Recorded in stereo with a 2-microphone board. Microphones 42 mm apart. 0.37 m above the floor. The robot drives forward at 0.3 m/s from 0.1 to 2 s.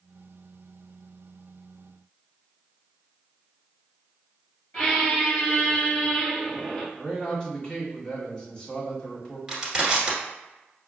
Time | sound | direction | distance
4.7 | a squeak | 15° left (ahead or behind) | 2.0 m
7.0 | a man speaking | 20° left (ahead or behind) | 2.0 m
9.5 | crushing | 15° right (ahead or behind) | 1.5 m